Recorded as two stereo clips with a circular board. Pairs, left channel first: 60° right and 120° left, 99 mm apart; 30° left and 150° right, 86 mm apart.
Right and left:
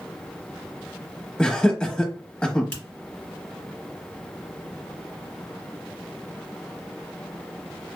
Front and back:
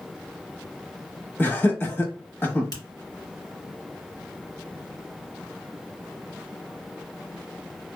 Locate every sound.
1.4 s laughter: 5° left, 1.0 m
2.7 s a finger snap: 10° left, 2 m